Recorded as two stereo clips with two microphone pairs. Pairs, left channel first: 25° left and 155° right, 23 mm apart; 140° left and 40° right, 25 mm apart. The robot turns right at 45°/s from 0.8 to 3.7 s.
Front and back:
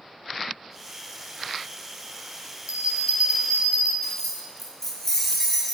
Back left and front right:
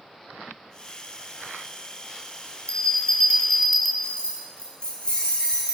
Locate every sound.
2.7 s a bell: straight behind, 1.9 m; by 3.9 s 130° right, 1.9 m
4.0 s keys jangling: 95° left, 2.5 m